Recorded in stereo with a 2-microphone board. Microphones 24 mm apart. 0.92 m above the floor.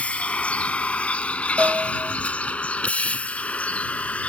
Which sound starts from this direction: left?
A vehicle, at 0.0 s.